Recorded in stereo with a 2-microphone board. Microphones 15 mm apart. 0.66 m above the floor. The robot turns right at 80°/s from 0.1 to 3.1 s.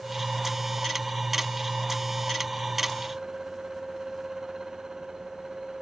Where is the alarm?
I don't hear an alarm.